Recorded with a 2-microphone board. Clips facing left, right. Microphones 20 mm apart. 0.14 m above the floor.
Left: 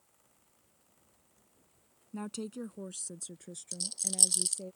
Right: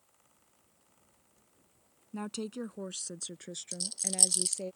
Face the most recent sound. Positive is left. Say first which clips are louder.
# even
turn(degrees=-5)  # may be behind; listen again after turning